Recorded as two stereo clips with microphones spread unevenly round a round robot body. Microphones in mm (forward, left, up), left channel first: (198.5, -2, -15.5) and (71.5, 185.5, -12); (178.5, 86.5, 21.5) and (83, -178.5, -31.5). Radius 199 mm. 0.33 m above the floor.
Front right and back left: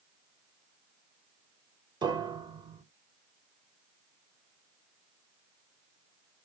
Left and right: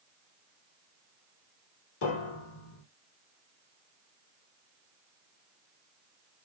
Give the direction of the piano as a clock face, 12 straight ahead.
10 o'clock.